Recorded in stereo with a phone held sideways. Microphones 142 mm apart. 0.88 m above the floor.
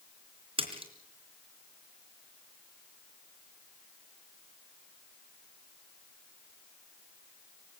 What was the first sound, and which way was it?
A splash, 40° right (ahead or behind).